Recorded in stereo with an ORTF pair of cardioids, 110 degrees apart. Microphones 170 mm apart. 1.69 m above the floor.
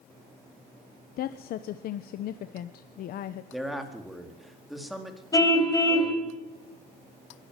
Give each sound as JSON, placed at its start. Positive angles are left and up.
{"t": 1.2, "sound": "a woman speaking", "azimuth_deg": 65, "distance_m": 1.1}
{"t": 3.5, "sound": "a man speaking", "azimuth_deg": 0, "distance_m": 4.0}
{"t": 5.3, "sound": "a car horn", "azimuth_deg": 20, "distance_m": 4.0}